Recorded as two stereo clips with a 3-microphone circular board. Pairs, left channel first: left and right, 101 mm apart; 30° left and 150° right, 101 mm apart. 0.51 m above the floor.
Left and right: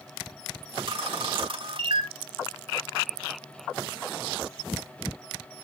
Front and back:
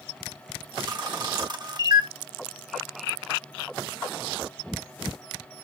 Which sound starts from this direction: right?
A camera shutter, at 0.8 s.